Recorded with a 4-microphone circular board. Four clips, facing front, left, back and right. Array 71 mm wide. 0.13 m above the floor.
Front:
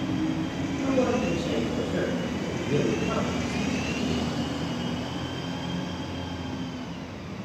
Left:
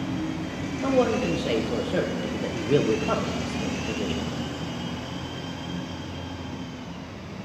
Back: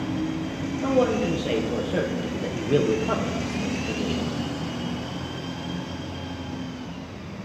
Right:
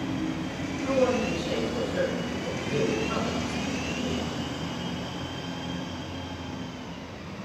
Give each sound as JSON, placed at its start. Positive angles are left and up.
{"t": 0.8, "sound": "a man speaking", "azimuth_deg": 120, "distance_m": 3.5}